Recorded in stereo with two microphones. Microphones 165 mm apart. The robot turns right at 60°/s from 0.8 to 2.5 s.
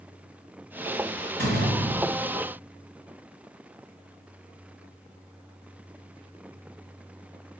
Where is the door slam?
100° right, 3 m; by 2.4 s 35° right, 3 m.